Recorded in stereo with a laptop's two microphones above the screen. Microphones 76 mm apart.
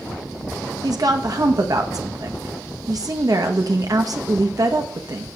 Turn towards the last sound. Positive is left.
turn(degrees=-55)  # may be behind; listen again after turning